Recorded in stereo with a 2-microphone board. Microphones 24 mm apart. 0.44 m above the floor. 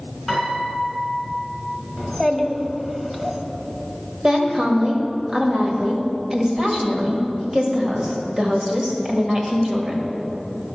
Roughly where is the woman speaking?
Right.